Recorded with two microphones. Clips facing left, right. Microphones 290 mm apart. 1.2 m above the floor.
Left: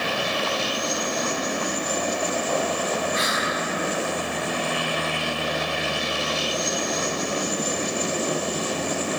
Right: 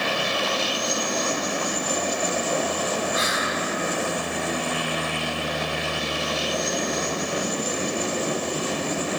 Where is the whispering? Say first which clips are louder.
Even; 65° left (ahead or behind), 1.7 m.